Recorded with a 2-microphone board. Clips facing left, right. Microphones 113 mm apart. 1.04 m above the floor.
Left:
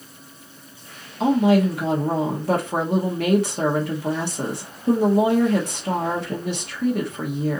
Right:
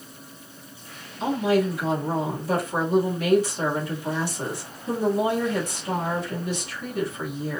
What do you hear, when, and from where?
1.2 s a woman speaking: 65° left (ahead or behind), 1.5 m